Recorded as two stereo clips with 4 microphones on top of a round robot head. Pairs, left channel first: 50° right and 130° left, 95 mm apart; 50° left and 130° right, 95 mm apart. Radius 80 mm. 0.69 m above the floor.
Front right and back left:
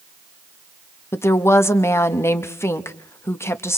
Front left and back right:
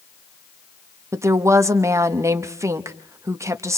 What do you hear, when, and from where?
1.1 s a woman speaking: 95° right, 1.3 m